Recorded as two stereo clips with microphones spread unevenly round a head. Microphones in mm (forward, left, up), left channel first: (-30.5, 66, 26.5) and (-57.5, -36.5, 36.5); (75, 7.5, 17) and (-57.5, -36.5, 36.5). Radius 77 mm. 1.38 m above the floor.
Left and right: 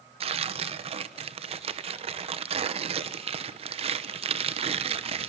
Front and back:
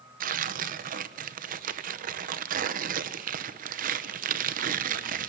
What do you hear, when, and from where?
0.2 s tearing paper: 135° right, 1.1 m